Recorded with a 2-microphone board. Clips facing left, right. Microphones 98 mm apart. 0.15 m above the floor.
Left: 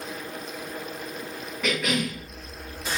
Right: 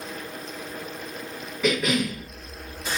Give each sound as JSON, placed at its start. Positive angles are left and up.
{"t": 1.6, "sound": "a cough", "side_deg": -5, "distance_m": 1.1}